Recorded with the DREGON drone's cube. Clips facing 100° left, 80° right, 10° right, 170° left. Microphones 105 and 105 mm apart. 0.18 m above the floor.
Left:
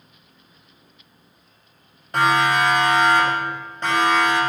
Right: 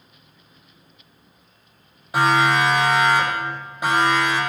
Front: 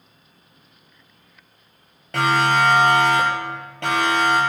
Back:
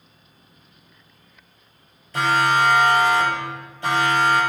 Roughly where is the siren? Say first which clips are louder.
Right 1 dB, front 1 dB; ahead.